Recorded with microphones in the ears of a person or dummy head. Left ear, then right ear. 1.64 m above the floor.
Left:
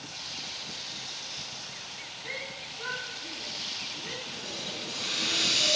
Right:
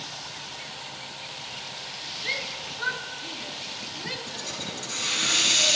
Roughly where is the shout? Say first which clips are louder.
Right 7 dB; right.